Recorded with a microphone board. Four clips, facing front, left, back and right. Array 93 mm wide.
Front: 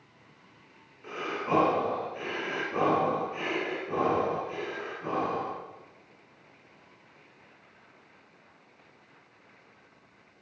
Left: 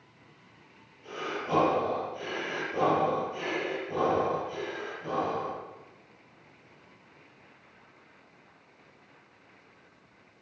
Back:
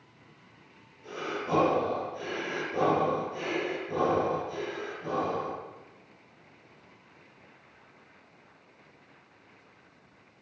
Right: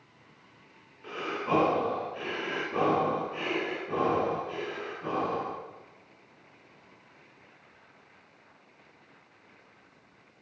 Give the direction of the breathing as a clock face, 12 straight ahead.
1 o'clock.